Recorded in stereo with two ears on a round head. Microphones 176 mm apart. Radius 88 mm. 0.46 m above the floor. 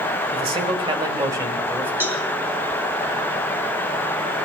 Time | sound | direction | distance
0.3 | a man speaking | 30° right (ahead or behind) | 2 m
2.0 | a cowbell | 10° right (ahead or behind) | 3 m